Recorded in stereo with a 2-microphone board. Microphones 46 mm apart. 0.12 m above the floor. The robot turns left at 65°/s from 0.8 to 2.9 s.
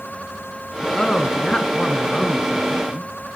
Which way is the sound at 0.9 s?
15° left (ahead or behind).